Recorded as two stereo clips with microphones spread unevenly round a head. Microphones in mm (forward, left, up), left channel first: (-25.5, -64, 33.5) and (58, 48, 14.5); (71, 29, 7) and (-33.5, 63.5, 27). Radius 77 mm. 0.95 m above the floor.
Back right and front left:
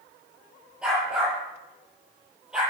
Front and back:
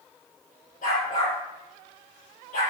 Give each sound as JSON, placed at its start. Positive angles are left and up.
{"t": 0.8, "sound": "a dog barking", "azimuth_deg": -35, "distance_m": 9.5}